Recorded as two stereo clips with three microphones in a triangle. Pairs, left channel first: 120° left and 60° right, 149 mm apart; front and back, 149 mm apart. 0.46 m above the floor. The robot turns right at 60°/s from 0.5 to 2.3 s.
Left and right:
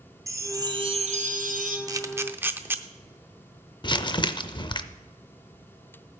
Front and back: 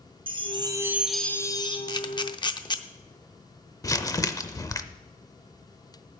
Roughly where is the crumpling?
Ahead left.